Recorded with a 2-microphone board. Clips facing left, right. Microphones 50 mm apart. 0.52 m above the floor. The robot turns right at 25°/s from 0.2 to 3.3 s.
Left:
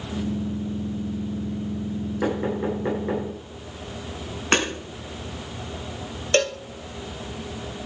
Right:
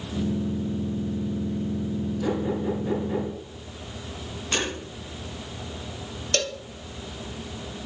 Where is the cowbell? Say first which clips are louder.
Left 7 dB; 35° left (ahead or behind), 0.6 m.